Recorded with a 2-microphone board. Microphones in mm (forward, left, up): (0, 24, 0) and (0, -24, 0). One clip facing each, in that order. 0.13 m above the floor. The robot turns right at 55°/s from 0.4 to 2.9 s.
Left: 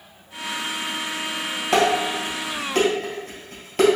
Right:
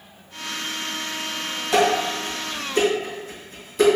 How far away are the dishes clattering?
About 2.0 m.